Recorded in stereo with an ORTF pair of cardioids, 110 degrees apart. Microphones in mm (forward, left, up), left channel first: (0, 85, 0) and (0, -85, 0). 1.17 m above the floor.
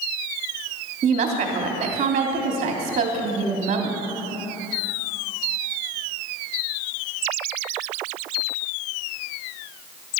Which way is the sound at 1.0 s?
45° right.